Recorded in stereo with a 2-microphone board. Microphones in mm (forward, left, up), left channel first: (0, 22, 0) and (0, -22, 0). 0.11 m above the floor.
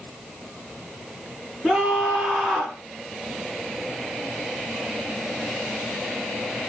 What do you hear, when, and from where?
1.6 s a scream: centre (ahead or behind), 8 m